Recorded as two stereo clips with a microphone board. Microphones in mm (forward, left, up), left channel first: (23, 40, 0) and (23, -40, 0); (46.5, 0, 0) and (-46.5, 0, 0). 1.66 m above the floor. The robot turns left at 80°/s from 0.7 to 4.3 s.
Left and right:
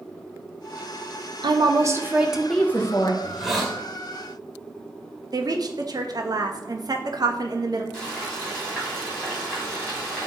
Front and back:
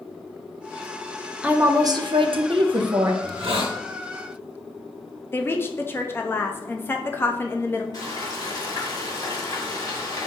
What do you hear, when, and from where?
1.4 s a woman speaking: 100° right, 0.6 m; by 3.1 s 125° left, 0.6 m
3.2 s a hiss: 155° right, 0.9 m; by 3.8 s 160° left, 0.9 m
5.3 s a woman speaking: 65° right, 0.5 m
7.9 s frying: 15° left, 2.0 m